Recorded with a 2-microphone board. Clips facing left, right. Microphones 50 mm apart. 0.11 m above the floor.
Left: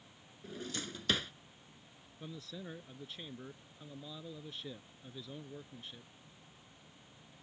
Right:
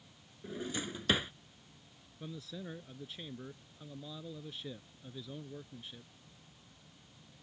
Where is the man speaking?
Centre (ahead or behind).